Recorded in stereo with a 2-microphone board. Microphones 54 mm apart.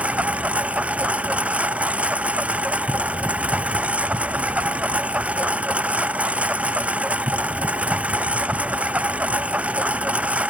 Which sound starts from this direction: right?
A lawn mower, at 0.0 s.